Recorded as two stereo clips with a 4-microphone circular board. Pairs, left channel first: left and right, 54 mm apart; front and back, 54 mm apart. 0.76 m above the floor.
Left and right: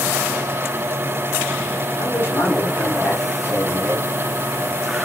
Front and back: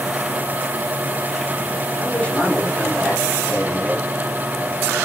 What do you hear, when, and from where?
2.0 s a man speaking: 70° left, 2.5 m